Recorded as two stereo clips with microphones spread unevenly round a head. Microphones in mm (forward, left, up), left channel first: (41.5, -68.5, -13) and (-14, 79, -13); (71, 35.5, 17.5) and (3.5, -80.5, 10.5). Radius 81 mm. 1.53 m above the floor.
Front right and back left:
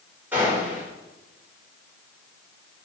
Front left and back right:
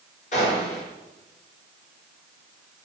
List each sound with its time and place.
0.3 s a gunshot: 30° left, 6 m